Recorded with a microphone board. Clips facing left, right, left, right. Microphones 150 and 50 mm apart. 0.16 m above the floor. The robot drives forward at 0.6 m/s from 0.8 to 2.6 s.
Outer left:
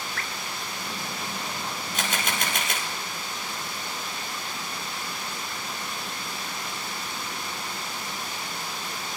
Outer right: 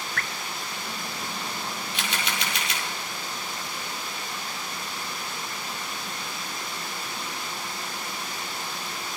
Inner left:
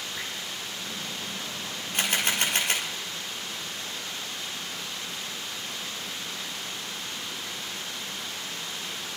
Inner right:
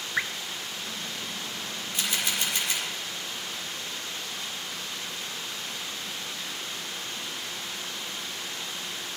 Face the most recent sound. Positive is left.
turn(degrees=50)  # may be behind; listen again after turning